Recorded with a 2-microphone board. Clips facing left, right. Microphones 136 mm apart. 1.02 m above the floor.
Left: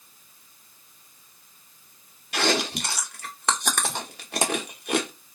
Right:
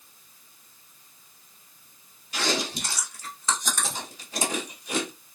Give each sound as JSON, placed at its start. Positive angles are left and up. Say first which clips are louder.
{"t": 2.3, "sound": "chewing", "louder": "left 4 dB", "side_deg": 65, "distance_m": 0.8}